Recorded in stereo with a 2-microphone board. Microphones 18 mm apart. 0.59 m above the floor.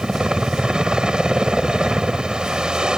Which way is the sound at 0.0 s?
50° right (ahead or behind).